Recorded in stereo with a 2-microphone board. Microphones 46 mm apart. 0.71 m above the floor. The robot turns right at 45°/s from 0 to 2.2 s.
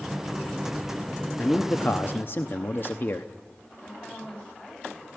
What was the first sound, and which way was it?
A man speaking, 40° left.